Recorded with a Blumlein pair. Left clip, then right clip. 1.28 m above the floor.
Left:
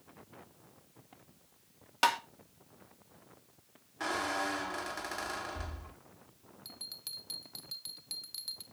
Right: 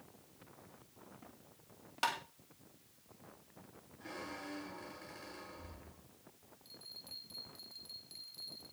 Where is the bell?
35° left, 2 m.